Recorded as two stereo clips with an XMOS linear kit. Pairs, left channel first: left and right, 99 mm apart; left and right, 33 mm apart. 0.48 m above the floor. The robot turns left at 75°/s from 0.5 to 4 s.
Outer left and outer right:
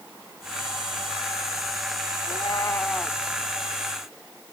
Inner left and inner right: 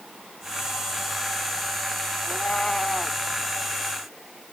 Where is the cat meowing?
65° left; by 3.2 s 5° right.